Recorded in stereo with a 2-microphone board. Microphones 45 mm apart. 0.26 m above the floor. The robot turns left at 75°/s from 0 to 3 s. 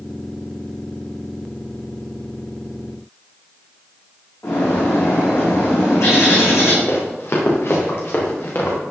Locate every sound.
4.4 s a bird: 75° left (ahead or behind), 6.5 m
6.9 s running footsteps: 65° left (ahead or behind), 5.5 m; by 8.8 s 50° left (ahead or behind), 5.5 m